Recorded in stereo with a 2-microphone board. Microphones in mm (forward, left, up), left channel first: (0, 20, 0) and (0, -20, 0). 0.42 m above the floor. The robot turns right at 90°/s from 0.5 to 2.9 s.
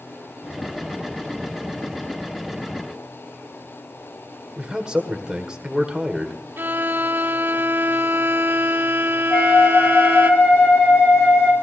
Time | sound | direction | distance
4.6 | a man speaking | 20° right (ahead or behind) | 1.5 m
6.6 | a violin | 60° right (ahead or behind) | 1.2 m
9.3 | a flute | 85° left | 3.5 m